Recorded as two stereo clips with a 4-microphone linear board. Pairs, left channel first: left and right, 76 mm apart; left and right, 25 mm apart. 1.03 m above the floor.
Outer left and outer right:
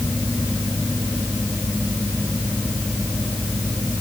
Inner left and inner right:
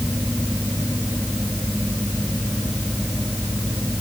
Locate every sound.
Only background noise.